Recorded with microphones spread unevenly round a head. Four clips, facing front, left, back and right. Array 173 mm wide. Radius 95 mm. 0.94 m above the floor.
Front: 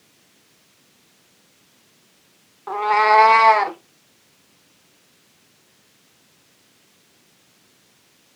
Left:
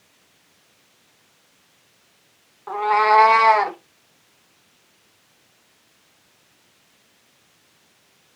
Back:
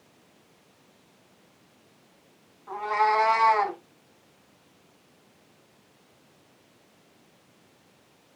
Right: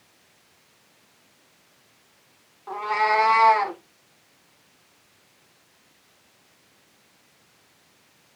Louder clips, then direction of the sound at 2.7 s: Left 6 dB, front 8 dB; 20° left.